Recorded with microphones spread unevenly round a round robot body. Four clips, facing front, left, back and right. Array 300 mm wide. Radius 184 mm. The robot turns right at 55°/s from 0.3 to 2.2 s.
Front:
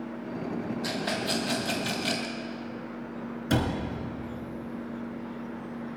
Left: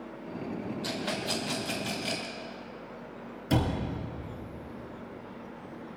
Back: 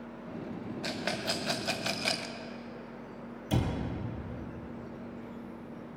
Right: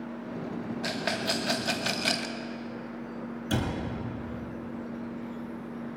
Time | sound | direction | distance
0.8 | a rattle | straight behind | 1.0 m
3.5 | a cupboard door | 5° left | 3 m